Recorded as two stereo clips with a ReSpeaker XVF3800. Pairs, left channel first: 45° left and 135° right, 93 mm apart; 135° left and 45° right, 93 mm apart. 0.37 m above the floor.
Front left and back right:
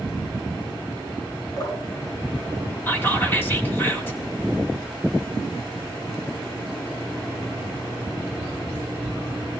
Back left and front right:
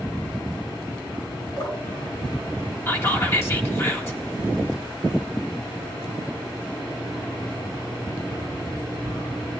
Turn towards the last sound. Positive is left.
turn(degrees=95)